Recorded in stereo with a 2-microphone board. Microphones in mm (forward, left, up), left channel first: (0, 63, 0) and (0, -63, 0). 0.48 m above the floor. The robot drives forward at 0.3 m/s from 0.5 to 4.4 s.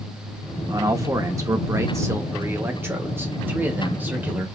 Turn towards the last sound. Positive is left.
turn(degrees=-15)  # may be behind; listen again after turning